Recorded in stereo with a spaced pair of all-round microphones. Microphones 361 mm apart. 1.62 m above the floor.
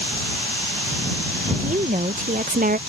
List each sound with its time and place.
1.6 s a woman speaking: 20° right (ahead or behind); by 2.8 s 25° right (ahead or behind)